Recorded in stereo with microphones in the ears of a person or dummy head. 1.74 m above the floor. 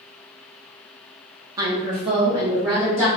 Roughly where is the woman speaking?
Right.